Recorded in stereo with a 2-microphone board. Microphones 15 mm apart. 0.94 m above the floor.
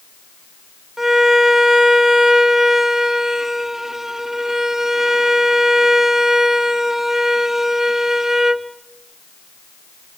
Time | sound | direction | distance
1.0 | a violin | 25° right (ahead or behind) | 1.1 m